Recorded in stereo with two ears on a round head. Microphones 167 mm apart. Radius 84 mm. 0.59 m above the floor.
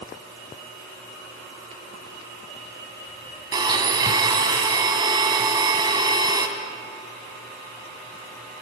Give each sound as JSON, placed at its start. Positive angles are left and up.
{"t": 3.5, "sound": "a blender", "side_deg": -25, "distance_m": 2.0}